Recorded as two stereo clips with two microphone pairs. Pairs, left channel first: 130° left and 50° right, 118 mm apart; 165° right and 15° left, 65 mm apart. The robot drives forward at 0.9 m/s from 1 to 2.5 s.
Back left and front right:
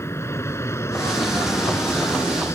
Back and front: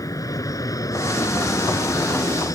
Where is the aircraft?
165° right.